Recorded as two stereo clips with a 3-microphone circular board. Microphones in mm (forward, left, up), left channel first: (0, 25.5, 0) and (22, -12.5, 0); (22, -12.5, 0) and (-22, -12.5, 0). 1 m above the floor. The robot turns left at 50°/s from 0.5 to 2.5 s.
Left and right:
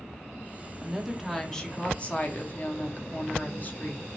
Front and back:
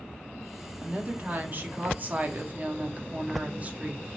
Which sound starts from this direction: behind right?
A woman speaking, at 0.8 s.